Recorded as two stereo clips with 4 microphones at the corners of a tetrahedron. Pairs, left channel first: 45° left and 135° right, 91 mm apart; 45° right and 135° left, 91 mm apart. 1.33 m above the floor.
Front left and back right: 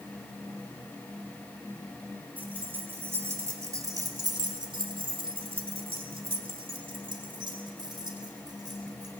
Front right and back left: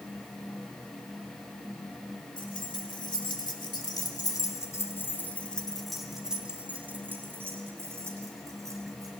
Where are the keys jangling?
60° right, 3 m; by 9.1 s 175° right, 4 m.